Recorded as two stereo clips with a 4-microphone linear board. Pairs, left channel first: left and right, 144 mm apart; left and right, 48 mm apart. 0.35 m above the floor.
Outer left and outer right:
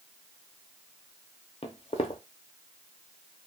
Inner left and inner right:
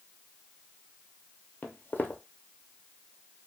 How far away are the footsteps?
About 0.5 m.